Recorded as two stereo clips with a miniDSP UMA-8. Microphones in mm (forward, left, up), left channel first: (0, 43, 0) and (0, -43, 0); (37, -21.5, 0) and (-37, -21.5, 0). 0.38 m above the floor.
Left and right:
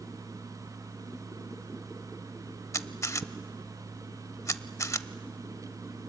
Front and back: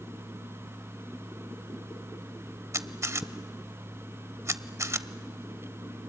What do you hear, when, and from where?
2.7 s a camera shutter: 140° left, 0.6 m